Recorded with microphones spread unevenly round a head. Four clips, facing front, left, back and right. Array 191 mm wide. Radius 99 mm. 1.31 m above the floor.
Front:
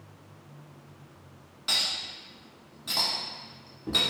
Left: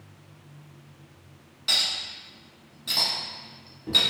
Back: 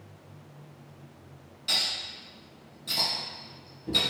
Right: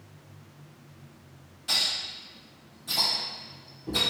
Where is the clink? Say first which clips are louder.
Left 1 dB, even; 20° left, 1.2 m.